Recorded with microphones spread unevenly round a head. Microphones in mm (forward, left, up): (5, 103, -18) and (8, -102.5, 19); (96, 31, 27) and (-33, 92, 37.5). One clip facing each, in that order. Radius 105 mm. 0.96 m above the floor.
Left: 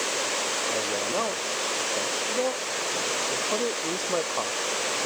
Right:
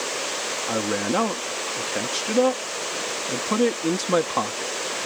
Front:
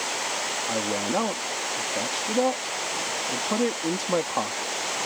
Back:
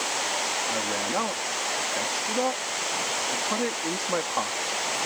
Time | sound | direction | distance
0.7 | a man speaking | 90° right | ?